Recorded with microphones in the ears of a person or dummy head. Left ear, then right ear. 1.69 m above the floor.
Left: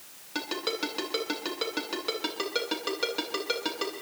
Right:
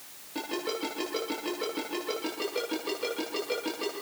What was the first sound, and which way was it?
A ringtone, 50° left (ahead or behind).